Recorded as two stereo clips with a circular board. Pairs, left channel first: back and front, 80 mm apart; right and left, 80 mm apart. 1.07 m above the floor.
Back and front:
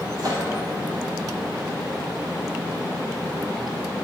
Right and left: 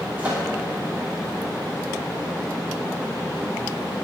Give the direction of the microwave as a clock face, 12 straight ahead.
11 o'clock.